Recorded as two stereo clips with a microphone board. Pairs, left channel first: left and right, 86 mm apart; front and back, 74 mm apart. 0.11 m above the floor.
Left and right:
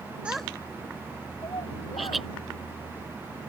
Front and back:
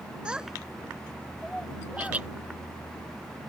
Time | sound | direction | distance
0.2 | a child speaking | 135° right | ?
2.0 | laughter | 175° right | ?